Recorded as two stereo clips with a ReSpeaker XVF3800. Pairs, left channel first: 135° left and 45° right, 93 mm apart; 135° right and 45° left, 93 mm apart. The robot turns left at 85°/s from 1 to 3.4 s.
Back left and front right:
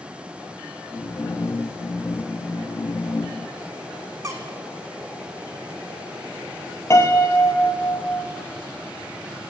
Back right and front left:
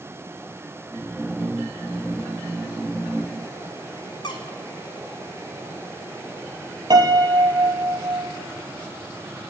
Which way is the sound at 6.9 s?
80° left.